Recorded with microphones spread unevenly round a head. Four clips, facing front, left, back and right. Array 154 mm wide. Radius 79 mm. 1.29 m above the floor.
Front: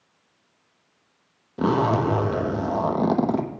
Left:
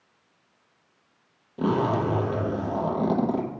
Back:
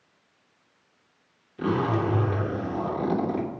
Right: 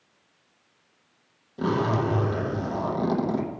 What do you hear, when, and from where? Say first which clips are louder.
1.6 s a zipper: left 1 dB, front 4 dB; 10° left, 1.1 m